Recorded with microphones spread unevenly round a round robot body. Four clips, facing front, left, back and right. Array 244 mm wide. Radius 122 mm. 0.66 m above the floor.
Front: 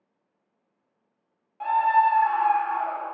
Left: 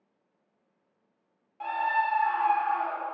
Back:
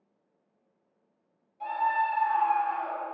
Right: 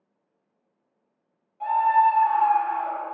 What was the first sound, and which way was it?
A scream, 30° left.